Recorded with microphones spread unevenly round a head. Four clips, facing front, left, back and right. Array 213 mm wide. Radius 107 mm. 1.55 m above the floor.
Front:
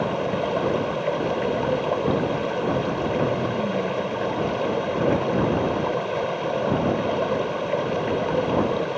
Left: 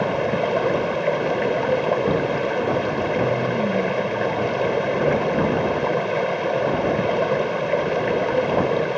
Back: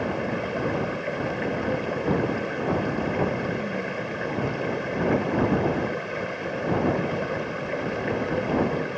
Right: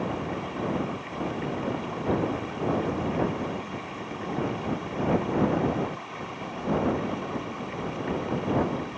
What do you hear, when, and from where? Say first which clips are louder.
0.0 s running water: left 10 dB, front 4 dB; 75° left